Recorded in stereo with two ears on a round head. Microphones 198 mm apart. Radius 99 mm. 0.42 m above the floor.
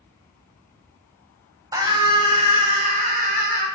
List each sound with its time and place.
1.7 s a scream: 15° right (ahead or behind), 2 m; by 3.7 s 45° right (ahead or behind), 2.5 m